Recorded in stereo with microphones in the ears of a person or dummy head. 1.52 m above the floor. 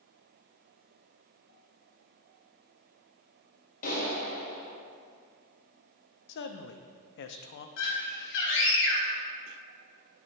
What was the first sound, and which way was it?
A clap, 50° left (ahead or behind).